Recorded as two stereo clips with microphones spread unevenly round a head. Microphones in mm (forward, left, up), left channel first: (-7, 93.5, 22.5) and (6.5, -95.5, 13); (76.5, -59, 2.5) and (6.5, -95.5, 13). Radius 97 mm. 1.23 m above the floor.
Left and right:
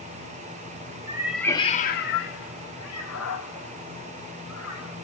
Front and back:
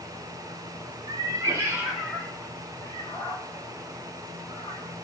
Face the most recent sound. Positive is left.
turn(degrees=90)